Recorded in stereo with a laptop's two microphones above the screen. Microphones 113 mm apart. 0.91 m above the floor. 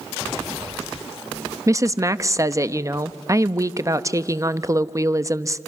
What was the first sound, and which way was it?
A woman speaking, 30° right (ahead or behind).